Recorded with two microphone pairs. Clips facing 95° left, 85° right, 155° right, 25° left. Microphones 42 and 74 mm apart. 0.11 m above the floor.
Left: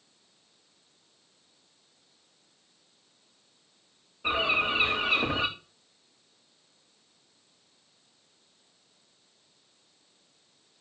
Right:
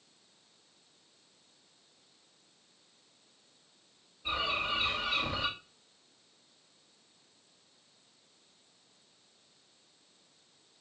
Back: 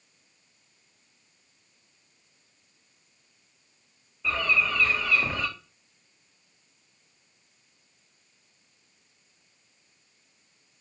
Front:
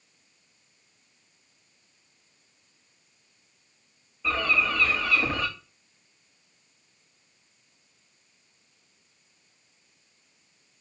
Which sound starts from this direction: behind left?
A bird, at 4.2 s.